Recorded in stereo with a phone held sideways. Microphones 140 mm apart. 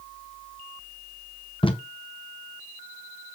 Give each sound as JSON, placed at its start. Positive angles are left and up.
{"t": 1.6, "sound": "tape being pulled", "side_deg": 40, "distance_m": 1.1}